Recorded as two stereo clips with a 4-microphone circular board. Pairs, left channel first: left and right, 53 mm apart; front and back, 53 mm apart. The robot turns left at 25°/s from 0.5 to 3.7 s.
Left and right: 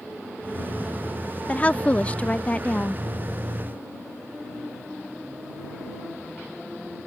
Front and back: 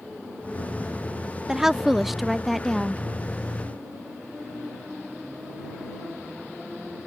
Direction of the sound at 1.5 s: 110° left.